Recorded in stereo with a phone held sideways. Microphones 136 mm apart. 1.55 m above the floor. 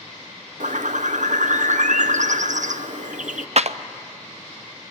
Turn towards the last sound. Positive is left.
turn(degrees=-55)  # may be behind; listen again after turning